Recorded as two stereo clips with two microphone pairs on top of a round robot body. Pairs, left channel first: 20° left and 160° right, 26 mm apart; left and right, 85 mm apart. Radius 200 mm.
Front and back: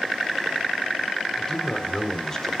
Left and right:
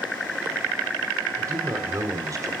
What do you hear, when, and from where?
1.4 s a man speaking: 45° right, 3 m